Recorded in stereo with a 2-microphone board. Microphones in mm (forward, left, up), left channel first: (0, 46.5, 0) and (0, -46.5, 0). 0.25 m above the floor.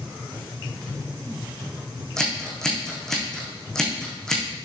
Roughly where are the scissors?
Centre.